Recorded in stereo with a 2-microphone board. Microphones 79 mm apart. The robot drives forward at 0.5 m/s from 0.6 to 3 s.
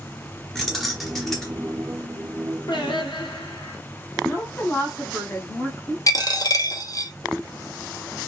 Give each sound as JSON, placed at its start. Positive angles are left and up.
{"t": 0.6, "sound": "keys jangling", "side_deg": 0, "distance_m": 1.0}
{"t": 2.7, "sound": "singing", "side_deg": 75, "distance_m": 0.9}
{"t": 4.2, "sound": "a woman speaking", "side_deg": 30, "distance_m": 1.2}
{"t": 6.1, "sound": "a dropped coin", "side_deg": 50, "distance_m": 0.5}